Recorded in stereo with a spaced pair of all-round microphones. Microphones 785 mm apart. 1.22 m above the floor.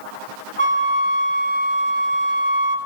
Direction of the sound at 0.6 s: 70° left (ahead or behind).